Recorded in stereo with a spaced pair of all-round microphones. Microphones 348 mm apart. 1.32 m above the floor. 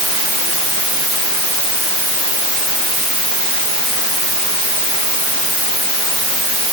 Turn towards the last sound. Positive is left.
No sound to turn to.